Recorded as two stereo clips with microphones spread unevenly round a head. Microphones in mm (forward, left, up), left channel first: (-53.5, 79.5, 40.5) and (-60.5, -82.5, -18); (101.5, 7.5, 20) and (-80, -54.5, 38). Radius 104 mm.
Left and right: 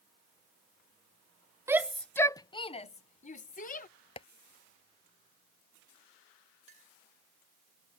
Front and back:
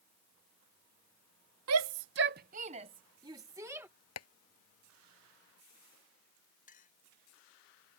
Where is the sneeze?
No sneeze in this recording.